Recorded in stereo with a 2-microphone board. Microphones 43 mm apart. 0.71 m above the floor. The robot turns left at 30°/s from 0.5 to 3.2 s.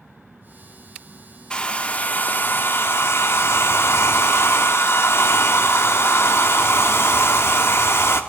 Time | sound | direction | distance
1.5 | a hair dryer | 160° left | 0.7 m